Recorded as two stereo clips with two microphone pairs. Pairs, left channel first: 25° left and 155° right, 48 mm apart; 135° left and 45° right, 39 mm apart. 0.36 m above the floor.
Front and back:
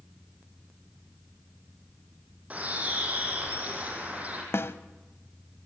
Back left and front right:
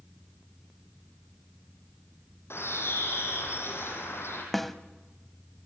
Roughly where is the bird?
Behind left.